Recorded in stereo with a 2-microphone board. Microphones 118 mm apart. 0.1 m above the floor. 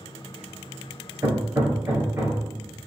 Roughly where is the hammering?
Right.